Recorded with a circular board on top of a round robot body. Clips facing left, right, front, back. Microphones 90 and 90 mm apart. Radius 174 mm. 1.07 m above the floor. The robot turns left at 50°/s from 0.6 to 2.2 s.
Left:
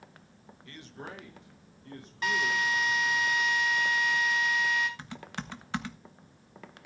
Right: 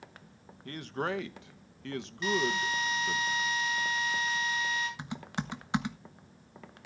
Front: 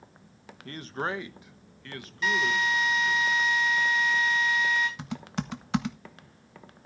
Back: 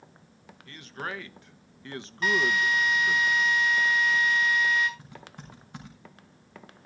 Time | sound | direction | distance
0.7 | a man speaking | 45° right | 1.1 m
2.2 | a drill | 135° left | 8.5 m
5.0 | typing on a keyboard | 15° right | 1.1 m